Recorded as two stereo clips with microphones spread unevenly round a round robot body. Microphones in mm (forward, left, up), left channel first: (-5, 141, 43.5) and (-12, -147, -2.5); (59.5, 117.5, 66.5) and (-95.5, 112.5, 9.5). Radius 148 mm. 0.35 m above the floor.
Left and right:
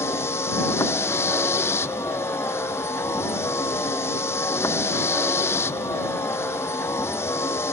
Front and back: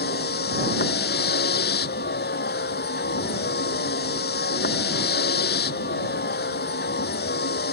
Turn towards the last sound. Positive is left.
turn(degrees=5)